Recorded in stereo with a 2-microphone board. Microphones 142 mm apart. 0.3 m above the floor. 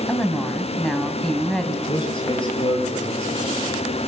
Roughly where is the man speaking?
Left.